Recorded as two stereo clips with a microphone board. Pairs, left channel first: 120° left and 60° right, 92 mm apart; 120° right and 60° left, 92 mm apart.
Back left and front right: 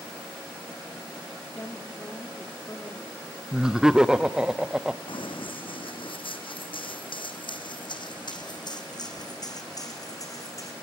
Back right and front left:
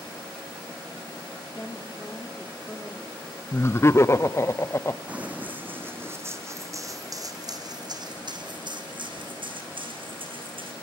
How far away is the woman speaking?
About 1.9 m.